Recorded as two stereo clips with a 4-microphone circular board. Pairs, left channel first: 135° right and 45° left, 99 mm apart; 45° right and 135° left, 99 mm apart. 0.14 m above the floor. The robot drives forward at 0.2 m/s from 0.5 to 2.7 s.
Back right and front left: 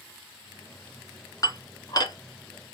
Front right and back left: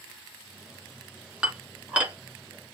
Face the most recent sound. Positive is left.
turn(degrees=-155)